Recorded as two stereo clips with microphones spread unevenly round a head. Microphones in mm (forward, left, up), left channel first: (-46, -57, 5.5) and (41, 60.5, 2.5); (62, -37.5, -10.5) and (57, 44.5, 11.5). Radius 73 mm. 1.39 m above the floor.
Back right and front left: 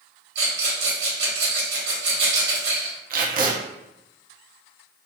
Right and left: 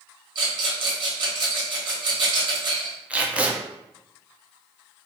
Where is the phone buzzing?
No phone buzzing in this recording.